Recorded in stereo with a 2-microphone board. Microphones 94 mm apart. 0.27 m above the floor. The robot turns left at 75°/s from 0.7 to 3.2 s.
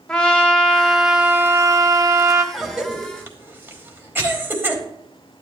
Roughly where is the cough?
Centre.